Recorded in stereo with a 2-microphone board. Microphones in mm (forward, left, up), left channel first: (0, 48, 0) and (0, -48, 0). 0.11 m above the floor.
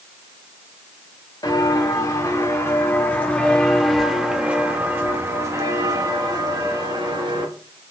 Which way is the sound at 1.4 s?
45° left (ahead or behind).